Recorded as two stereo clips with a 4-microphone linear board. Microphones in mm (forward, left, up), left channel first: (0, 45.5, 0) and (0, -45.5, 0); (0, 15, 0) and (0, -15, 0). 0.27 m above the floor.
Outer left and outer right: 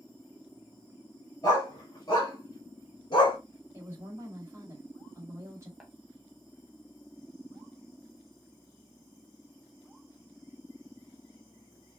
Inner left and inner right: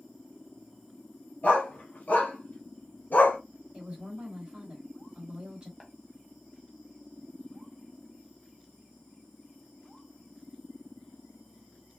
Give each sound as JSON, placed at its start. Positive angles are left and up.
{"t": 1.4, "sound": "a dog barking", "side_deg": 40, "distance_m": 2.0}
{"t": 3.7, "sound": "a woman speaking", "side_deg": -30, "distance_m": 1.8}
{"t": 5.8, "sound": "tapping", "side_deg": -5, "distance_m": 1.1}